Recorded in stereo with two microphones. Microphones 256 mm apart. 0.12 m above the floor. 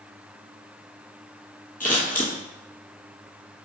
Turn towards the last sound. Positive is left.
turn(degrees=35)  # may be behind; listen again after turning